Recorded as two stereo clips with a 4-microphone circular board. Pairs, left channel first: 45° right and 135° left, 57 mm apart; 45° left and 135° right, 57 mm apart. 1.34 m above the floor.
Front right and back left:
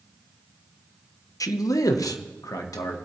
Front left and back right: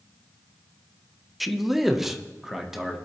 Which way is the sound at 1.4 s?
45° right.